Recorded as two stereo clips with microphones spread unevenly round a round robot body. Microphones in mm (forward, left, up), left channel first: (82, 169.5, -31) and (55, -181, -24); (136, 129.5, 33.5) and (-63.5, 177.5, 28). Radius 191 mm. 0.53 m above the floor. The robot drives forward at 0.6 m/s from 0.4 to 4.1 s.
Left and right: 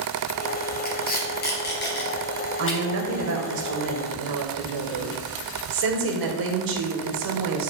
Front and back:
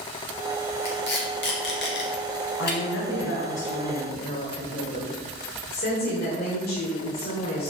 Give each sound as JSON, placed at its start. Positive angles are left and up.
{"t": 0.8, "sound": "tape being pulled", "azimuth_deg": 20, "distance_m": 3.0}
{"t": 2.6, "sound": "a woman speaking", "azimuth_deg": -40, "distance_m": 1.9}